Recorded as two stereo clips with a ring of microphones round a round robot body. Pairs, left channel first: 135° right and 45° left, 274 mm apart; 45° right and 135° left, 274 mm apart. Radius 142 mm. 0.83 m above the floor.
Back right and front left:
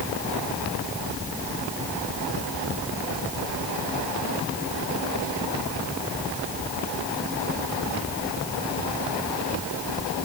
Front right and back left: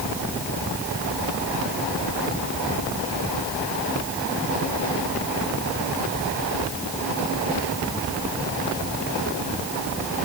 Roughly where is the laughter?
I don't hear laughter.